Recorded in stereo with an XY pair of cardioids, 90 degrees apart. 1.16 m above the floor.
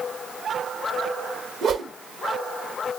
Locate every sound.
1.6 s a whoosh: 70° right, 0.8 m